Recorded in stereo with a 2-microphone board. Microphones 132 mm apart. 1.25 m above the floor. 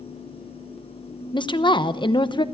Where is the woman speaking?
35° left (ahead or behind), 0.9 m.